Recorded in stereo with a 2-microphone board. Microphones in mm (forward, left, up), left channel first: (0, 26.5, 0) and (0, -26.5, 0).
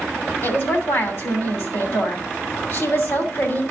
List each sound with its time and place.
0.4 s a woman speaking: 50° left (ahead or behind), 2.5 m